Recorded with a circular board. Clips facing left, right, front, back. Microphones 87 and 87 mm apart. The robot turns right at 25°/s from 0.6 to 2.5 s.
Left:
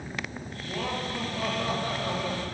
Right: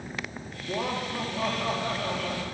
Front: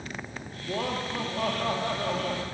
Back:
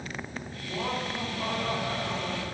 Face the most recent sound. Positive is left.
turn(degrees=20)